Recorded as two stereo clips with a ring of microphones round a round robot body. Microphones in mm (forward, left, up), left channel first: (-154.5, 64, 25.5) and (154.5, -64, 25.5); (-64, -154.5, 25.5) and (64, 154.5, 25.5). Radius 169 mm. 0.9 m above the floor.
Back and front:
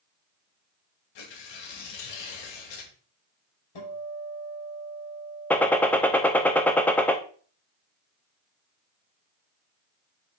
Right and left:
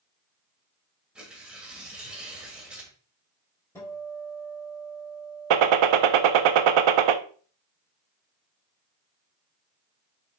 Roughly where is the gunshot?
Left.